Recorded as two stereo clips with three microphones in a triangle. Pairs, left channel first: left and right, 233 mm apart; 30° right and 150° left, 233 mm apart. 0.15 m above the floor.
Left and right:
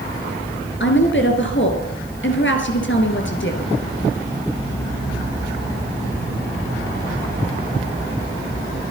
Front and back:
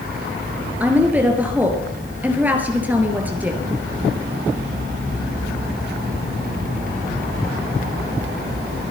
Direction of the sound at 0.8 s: 70° left.